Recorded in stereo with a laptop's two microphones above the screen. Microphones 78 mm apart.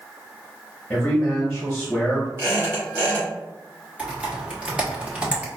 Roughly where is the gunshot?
I don't hear a gunshot.